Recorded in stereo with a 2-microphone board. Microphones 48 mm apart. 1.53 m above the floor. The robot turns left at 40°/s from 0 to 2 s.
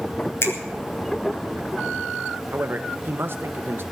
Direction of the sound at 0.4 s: 65° left (ahead or behind).